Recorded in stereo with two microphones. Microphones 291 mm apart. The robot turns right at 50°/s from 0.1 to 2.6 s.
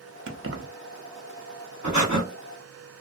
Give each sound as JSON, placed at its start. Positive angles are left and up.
{"t": 0.3, "sound": "keys jangling", "side_deg": -45, "distance_m": 0.5}
{"t": 1.8, "sound": "breathing", "side_deg": -65, "distance_m": 1.5}